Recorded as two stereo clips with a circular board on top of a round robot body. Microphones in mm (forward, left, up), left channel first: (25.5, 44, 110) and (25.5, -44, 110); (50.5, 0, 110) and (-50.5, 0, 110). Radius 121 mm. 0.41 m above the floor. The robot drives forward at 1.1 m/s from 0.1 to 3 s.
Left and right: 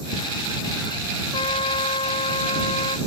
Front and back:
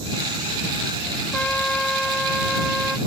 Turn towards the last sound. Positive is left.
turn(degrees=95)